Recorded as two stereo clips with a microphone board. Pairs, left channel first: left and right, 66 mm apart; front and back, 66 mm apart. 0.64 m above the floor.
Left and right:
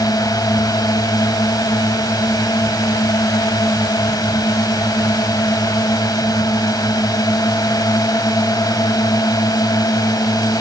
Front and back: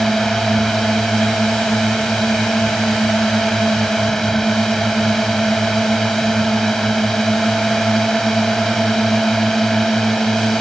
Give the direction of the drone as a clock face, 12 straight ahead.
9 o'clock.